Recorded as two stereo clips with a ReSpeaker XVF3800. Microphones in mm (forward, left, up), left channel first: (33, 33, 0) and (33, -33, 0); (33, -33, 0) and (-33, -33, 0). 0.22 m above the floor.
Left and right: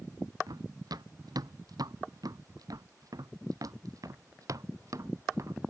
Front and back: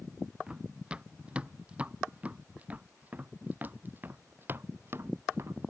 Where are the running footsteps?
105° right; by 5.6 s 130° right.